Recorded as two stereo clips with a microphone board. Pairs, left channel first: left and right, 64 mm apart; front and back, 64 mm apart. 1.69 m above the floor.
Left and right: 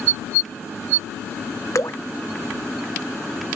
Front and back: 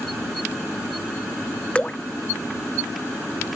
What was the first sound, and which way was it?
Dripping, 70° left.